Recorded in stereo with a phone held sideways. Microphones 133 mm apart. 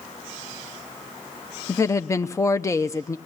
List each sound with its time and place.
1.7 s a woman speaking: 25° left (ahead or behind), 0.7 m